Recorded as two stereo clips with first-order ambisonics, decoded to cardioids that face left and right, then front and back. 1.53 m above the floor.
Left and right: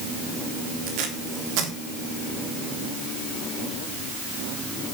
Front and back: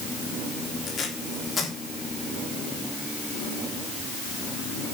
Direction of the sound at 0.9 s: 70° right.